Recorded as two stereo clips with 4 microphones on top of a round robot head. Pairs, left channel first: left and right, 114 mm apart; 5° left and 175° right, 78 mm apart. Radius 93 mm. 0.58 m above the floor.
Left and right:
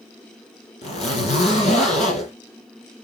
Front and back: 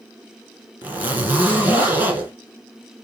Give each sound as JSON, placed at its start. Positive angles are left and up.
{"t": 0.8, "sound": "a zipper", "azimuth_deg": 125, "distance_m": 5.5}